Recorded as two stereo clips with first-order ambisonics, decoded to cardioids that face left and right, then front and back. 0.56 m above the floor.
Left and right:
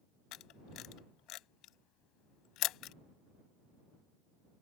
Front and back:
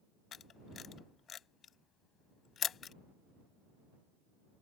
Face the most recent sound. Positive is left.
turn(degrees=60)